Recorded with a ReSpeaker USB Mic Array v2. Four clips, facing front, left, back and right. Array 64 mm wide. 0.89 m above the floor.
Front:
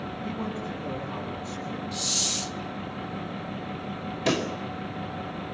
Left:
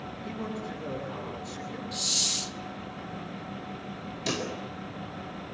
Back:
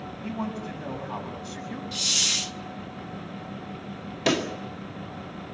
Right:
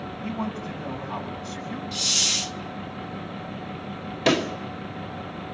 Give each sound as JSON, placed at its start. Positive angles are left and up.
{"t": 0.2, "sound": "a man speaking", "azimuth_deg": -140, "distance_m": 7.0}
{"t": 1.9, "sound": "a hiss", "azimuth_deg": -140, "distance_m": 0.6}
{"t": 4.3, "sound": "a pop", "azimuth_deg": -115, "distance_m": 1.8}